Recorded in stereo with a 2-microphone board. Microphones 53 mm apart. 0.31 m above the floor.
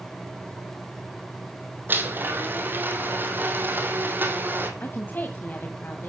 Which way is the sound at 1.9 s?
40° right (ahead or behind).